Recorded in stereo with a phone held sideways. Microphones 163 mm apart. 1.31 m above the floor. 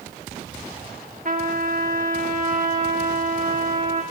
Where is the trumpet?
55° right (ahead or behind), 2.5 m.